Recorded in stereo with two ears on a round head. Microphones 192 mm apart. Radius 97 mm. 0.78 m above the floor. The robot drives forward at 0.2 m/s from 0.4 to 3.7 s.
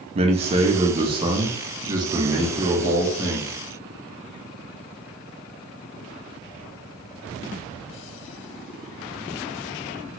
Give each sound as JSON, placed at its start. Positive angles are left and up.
{"t": 0.1, "sound": "a man speaking", "side_deg": -30, "distance_m": 0.6}